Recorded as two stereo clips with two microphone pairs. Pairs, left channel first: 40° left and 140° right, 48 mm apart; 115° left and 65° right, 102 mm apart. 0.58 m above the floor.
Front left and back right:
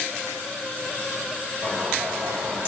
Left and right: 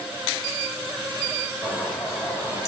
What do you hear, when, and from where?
1.6 s a bird: 175° left, 5 m